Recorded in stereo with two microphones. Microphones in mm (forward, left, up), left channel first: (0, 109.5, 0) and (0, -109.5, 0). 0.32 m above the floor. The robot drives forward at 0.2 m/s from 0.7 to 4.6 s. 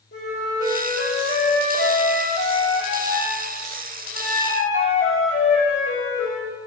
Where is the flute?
80° left, 5.5 m.